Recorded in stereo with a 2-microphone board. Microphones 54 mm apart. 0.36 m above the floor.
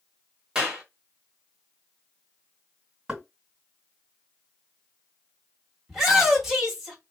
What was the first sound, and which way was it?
A clap, 15° right (ahead or behind).